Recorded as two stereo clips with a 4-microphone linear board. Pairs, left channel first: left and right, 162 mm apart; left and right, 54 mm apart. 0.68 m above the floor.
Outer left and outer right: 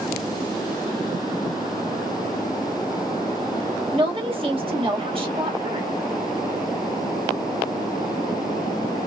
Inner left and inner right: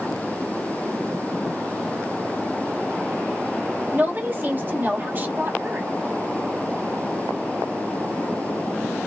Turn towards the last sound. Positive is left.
turn(degrees=-35)  # may be behind; listen again after turning